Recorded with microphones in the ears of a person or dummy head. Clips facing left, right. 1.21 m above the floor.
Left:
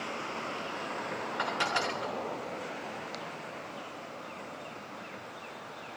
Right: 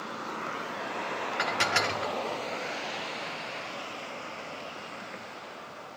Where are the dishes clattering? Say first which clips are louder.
Right 2 dB; 20° right (ahead or behind), 0.6 m.